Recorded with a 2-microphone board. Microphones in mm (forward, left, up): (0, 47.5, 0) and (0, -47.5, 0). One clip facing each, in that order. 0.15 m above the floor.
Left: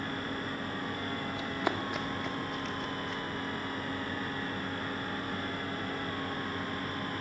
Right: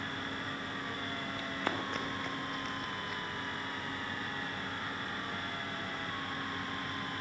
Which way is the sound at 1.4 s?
20° left (ahead or behind).